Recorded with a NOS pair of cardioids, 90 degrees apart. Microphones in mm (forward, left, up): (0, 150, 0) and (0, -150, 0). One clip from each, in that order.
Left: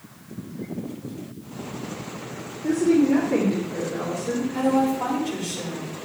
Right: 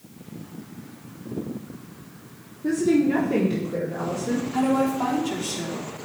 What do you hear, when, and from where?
2.6 s a woman speaking: 40° right, 3.5 m; by 4.4 s 35° right, 4.5 m
4.5 s a woman speaking: 55° right, 4 m